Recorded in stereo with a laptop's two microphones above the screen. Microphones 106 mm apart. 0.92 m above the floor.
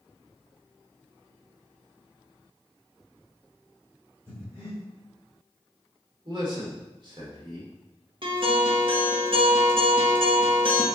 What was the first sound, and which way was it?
Breathing, 25° right (ahead or behind).